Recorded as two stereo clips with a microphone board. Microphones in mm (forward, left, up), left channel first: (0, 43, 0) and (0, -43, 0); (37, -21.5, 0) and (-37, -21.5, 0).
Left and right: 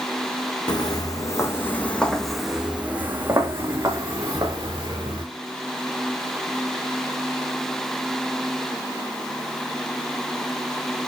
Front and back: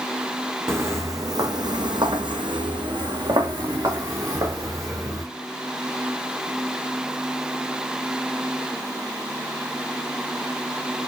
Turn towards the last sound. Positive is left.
turn(degrees=-135)